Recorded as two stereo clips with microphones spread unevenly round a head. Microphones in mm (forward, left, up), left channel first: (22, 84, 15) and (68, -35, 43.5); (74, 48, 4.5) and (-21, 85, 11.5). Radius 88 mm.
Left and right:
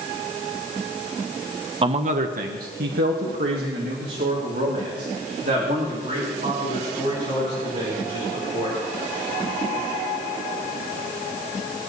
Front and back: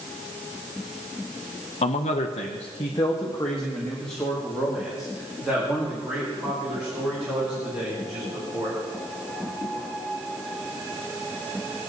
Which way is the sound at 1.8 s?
20° right.